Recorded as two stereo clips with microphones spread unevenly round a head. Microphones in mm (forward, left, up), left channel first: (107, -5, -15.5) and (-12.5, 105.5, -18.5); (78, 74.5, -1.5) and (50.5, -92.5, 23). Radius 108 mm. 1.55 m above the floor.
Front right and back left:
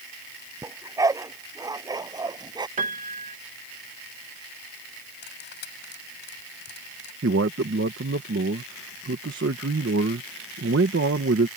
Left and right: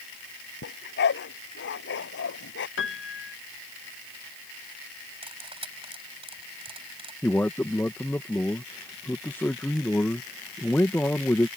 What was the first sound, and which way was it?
A dog barking, 65° left.